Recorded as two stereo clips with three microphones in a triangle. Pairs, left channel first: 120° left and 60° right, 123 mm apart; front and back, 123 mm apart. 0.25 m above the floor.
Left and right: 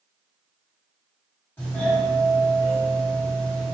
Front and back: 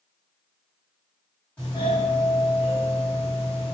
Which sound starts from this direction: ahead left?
A doorbell, at 1.6 s.